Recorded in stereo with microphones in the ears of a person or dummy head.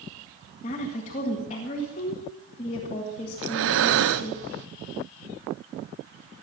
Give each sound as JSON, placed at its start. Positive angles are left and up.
{"t": 0.6, "sound": "a woman speaking", "side_deg": 35, "distance_m": 2.0}
{"t": 3.4, "sound": "breathing", "side_deg": -75, "distance_m": 1.0}